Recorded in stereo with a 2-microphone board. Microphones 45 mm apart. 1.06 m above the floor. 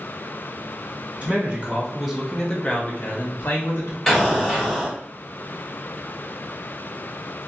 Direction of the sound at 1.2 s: 30° right (ahead or behind).